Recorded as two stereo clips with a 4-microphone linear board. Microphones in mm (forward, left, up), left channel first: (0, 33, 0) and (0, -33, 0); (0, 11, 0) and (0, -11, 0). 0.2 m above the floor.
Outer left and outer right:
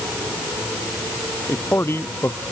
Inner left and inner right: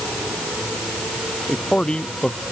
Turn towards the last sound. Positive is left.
turn(degrees=40)  # may be behind; listen again after turning